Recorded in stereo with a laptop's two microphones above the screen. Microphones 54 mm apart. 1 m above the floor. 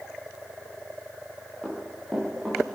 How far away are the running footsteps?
About 7 m.